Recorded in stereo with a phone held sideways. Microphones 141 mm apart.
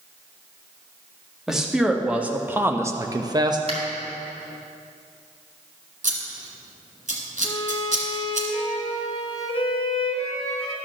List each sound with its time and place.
1.5 s a man speaking: 5° right (ahead or behind), 1.4 m; by 3.6 s 30° right (ahead or behind), 0.6 m
3.7 s a finger snap: 50° right (ahead or behind), 3 m
6.0 s scissors: 70° right (ahead or behind), 1.8 m
7.4 s a violin: 45° left (ahead or behind), 1.4 m